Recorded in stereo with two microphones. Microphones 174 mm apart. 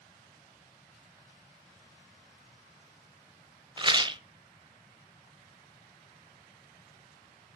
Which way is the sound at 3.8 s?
30° right (ahead or behind).